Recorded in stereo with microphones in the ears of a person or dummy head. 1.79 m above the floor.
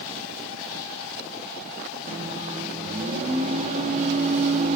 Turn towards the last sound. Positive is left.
turn(degrees=-40)  # may be behind; listen again after turning